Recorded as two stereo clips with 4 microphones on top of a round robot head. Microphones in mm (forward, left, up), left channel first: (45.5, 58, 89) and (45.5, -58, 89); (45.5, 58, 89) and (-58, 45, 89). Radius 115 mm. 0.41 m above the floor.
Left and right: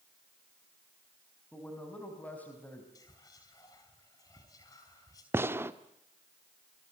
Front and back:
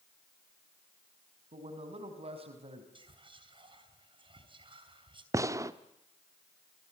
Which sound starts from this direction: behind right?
A gunshot, at 5.3 s.